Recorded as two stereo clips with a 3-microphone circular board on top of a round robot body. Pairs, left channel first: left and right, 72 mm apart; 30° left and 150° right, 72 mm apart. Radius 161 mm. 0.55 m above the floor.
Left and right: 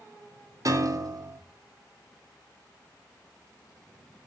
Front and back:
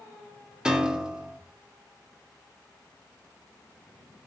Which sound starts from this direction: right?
A piano, at 0.7 s.